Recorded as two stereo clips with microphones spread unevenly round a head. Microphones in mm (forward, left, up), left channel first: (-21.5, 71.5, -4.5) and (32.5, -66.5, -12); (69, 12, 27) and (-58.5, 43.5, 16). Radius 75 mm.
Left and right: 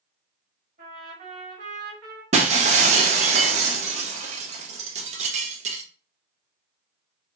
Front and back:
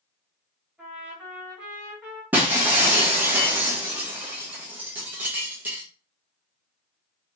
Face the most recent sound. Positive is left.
turn(degrees=-115)